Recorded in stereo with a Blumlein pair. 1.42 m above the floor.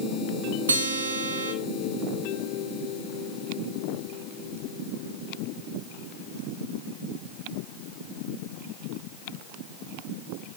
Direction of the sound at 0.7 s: 70° right.